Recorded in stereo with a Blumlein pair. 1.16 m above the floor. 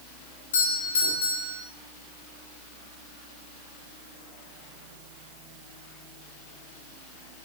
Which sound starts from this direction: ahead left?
A doorbell, at 0.5 s.